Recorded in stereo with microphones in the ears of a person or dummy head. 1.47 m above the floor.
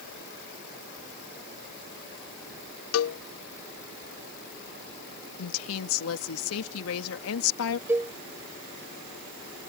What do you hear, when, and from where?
2.9 s a cowbell: 75° left (ahead or behind)
5.4 s a woman speaking: 85° left
7.9 s a cowbell: 10° right (ahead or behind)